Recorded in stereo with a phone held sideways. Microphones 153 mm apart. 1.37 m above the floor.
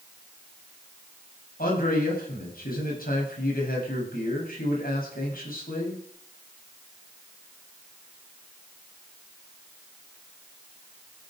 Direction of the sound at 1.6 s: 70° left (ahead or behind).